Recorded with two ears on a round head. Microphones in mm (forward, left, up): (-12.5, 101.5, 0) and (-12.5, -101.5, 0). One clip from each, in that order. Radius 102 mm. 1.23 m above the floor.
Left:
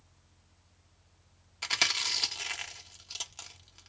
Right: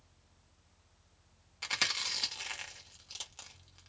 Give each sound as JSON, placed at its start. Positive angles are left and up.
{"t": 1.6, "sound": "chewing", "side_deg": 10, "distance_m": 1.0}